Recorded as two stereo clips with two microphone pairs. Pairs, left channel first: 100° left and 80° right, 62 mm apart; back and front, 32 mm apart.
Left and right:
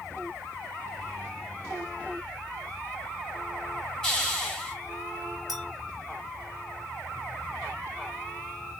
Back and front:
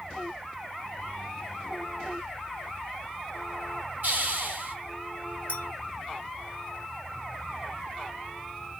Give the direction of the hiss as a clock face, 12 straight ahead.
11 o'clock.